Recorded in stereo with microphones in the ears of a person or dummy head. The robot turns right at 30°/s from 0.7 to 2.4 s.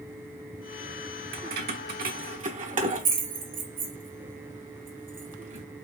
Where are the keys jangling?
60° right (ahead or behind), 0.9 m; by 5.7 s 40° right (ahead or behind), 0.9 m.